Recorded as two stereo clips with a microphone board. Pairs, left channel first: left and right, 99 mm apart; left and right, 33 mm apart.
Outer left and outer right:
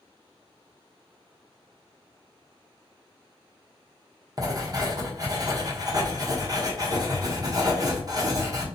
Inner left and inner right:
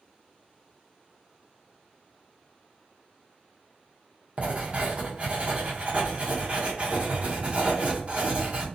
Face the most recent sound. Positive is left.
turn(degrees=-40)  # may be behind; listen again after turning